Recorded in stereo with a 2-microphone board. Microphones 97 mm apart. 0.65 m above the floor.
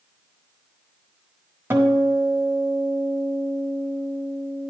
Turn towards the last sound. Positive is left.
turn(degrees=-20)  # may be behind; listen again after turning